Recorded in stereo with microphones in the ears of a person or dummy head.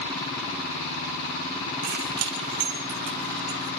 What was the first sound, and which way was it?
Keys jangling, 65° right (ahead or behind).